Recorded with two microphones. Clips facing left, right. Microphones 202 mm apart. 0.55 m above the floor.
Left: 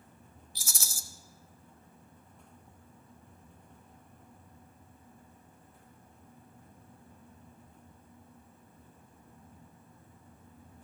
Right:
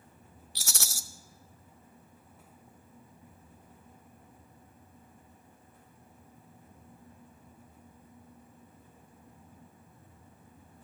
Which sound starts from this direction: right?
A rattle, at 0.6 s.